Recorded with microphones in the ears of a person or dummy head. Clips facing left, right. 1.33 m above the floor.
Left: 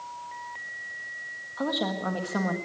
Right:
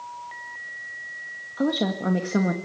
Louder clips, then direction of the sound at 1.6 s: Right 5 dB; 30° right (ahead or behind).